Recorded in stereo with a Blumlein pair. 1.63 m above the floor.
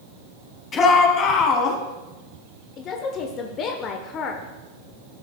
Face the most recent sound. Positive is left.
turn(degrees=30)